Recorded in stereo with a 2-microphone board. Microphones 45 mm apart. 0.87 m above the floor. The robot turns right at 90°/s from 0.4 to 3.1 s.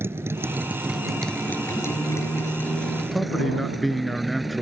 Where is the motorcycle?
60° right; by 4.6 s straight behind.